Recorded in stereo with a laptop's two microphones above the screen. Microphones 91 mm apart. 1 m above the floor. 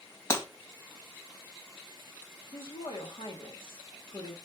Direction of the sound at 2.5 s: 75° left (ahead or behind).